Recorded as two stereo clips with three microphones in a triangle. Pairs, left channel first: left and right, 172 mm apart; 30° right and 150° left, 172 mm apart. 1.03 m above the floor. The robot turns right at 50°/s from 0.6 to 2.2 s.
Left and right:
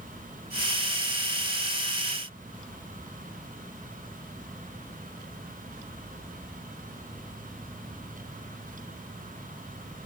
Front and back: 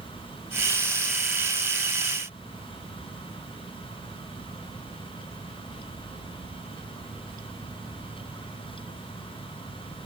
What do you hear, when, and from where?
Only background noise.